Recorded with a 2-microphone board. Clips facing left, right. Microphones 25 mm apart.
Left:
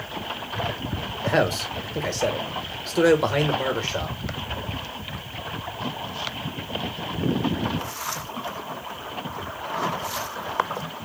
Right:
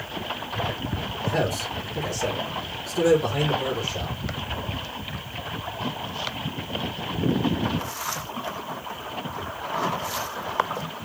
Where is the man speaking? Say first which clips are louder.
Left 4 dB; 50° left (ahead or behind), 1.4 m.